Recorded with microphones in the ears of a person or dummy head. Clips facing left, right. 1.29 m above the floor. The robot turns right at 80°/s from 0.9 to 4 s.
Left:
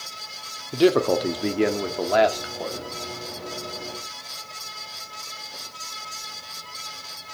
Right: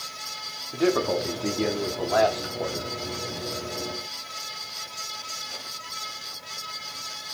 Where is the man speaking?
50° left, 0.5 m; by 2.9 s 150° right, 0.5 m.